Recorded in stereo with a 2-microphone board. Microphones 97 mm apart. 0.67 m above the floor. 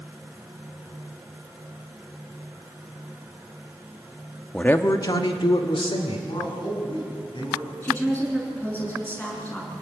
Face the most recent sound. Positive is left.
turn(degrees=20)  # may be behind; listen again after turning